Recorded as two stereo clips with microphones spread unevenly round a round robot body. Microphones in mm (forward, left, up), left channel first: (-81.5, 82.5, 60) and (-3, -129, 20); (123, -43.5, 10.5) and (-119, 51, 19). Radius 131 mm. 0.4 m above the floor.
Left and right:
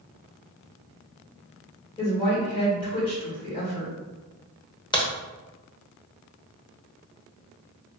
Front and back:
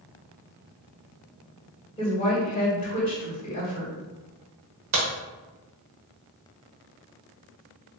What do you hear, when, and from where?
2.0 s a woman speaking: 40° left, 1.8 m
4.9 s a crack: 175° right, 1.1 m